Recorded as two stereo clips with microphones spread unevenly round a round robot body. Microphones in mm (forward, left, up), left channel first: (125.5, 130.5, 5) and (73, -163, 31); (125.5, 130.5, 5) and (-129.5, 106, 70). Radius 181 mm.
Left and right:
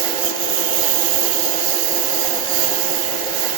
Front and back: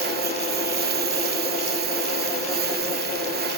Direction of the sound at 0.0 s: 110° right.